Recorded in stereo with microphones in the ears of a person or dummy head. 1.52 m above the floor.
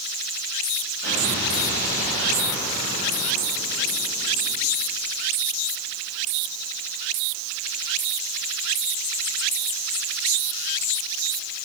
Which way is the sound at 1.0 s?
80° left.